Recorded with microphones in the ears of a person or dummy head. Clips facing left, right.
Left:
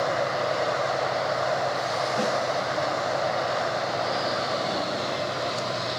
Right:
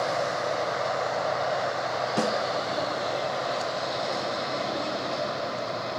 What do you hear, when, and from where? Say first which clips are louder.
2.2 s a snare drum: right 1 dB; 85° right, 4.5 m